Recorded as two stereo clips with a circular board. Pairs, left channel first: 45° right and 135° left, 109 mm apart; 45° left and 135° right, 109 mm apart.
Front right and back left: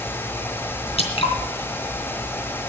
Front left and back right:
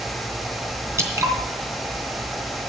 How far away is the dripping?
About 3 m.